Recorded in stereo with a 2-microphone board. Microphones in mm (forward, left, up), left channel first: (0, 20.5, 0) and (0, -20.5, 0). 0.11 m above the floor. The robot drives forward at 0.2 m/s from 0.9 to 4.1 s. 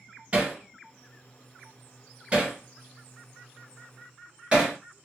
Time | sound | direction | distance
0.3 | hammering | 25° right (ahead or behind) | 1.5 m